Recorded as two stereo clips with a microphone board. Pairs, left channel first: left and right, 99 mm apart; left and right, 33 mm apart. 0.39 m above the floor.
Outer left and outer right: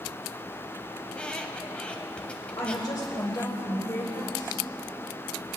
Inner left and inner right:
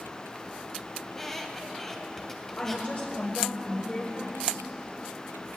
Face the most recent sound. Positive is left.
turn(degrees=45)  # may be behind; listen again after turning